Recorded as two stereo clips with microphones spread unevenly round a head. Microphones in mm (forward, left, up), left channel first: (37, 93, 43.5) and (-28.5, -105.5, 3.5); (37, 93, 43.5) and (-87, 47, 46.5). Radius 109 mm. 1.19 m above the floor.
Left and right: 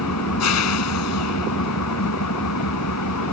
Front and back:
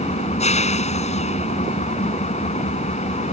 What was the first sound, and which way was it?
An engine running, 55° left.